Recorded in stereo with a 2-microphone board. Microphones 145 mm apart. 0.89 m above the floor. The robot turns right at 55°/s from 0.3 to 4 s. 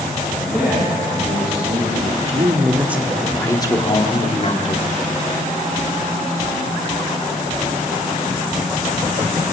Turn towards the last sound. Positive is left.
turn(degrees=50)